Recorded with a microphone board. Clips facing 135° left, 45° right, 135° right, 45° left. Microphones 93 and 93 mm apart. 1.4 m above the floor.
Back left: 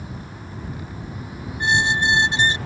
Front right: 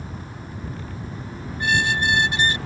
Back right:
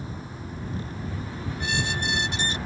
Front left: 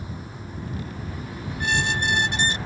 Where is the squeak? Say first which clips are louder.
Back left 2 dB, front left 5 dB; 70° left.